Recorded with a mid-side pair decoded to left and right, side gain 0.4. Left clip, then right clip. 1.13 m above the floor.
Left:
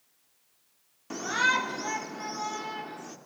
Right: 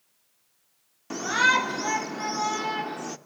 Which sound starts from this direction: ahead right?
A shout, at 1.1 s.